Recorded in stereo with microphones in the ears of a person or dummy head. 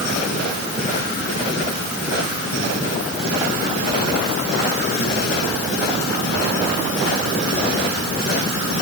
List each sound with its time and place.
Only background noise.